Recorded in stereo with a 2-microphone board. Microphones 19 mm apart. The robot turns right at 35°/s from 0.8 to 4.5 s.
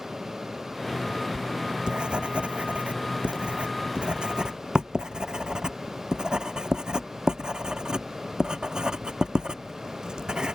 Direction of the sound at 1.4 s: 35° right (ahead or behind).